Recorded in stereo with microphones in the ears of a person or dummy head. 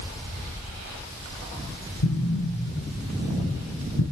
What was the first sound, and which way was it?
An explosion, 75° left (ahead or behind).